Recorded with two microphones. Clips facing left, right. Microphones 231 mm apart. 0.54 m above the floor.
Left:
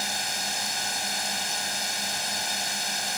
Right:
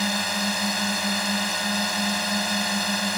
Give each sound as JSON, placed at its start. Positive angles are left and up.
{"t": 0.0, "sound": "a drone", "side_deg": -70}